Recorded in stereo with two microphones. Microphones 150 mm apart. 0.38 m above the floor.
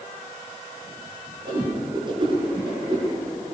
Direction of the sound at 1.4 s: 35° right (ahead or behind).